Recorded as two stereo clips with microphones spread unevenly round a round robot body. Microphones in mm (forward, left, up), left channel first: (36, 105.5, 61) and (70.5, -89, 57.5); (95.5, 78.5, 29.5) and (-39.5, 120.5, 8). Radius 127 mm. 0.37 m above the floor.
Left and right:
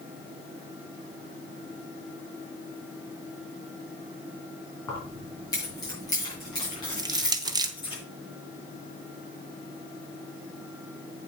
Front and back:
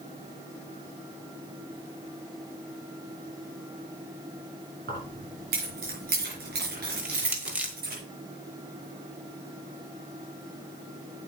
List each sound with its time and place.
4.9 s keys jangling: 175° left, 3.5 m; by 8.0 s 170° left, 5.5 m
7.0 s crushing: 135° right, 0.8 m